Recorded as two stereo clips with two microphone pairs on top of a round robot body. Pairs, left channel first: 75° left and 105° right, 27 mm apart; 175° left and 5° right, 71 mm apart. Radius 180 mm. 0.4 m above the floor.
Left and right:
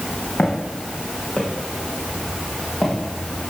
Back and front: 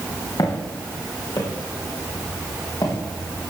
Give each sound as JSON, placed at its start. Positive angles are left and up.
{"t": 0.4, "sound": "footsteps", "azimuth_deg": 140, "distance_m": 3.0}